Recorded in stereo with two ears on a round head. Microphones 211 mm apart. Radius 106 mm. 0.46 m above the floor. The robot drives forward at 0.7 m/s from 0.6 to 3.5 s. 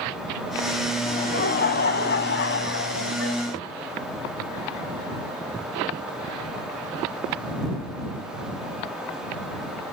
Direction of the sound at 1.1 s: 40° left (ahead or behind).